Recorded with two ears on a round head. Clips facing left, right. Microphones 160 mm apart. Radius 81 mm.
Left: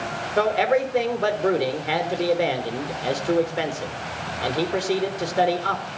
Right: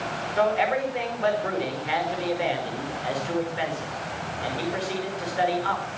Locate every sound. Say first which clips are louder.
0.4 s a man speaking: left 3 dB; 55° left (ahead or behind), 4.5 m